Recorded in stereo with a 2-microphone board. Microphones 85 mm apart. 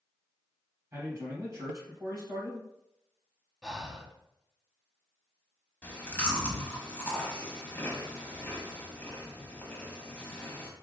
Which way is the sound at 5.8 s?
20° left (ahead or behind).